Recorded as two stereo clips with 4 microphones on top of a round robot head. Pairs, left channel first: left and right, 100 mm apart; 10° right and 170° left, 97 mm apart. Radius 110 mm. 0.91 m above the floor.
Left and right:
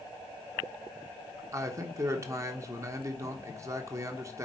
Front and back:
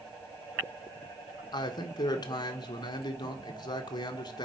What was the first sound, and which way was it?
A man speaking, 40° right.